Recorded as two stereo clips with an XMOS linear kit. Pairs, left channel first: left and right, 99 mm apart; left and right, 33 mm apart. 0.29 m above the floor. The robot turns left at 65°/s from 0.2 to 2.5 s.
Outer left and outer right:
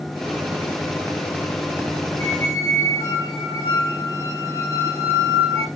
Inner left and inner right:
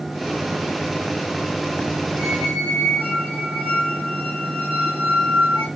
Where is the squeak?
80° right, 3.5 m.